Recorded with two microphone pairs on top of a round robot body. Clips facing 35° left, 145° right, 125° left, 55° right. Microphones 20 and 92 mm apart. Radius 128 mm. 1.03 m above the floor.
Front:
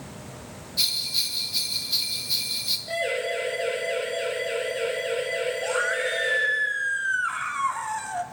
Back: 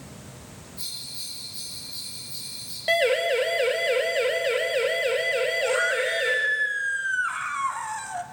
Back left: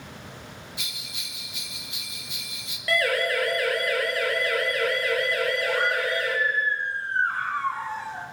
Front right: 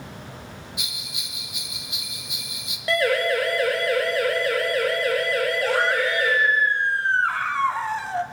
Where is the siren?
120° right, 4.5 m; by 6.3 s 105° right, 6 m.